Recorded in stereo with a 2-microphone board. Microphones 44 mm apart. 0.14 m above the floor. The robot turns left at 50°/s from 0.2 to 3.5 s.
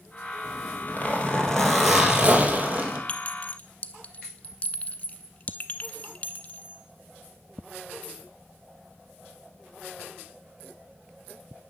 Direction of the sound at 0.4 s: 70° left.